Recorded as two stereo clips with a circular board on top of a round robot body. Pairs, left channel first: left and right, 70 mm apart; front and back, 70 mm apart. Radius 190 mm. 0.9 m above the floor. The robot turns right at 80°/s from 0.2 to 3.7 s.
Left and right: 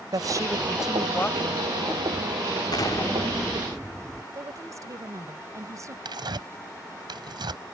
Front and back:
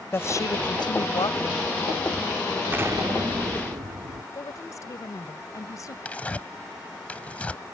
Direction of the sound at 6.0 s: 75° right.